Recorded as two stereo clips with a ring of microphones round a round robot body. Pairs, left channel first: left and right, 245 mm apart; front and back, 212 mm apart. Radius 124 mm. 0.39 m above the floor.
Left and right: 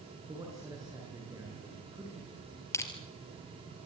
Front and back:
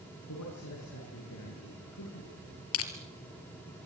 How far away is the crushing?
About 2.5 m.